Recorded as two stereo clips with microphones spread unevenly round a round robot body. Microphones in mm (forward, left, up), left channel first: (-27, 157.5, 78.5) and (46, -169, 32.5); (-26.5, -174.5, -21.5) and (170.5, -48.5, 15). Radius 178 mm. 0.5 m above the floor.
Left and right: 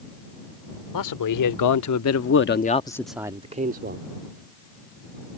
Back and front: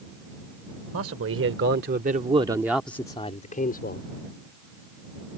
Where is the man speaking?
75° left; by 4.1 s 120° right.